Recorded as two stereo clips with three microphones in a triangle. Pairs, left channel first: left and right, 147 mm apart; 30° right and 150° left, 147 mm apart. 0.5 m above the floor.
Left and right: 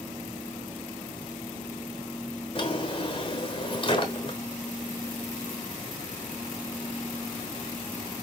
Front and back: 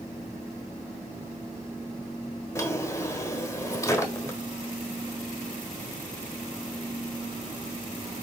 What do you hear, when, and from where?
2.5 s a drawer: 40° left, 1.2 m